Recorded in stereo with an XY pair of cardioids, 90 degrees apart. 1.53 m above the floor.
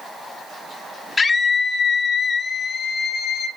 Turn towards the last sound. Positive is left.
turn(degrees=65)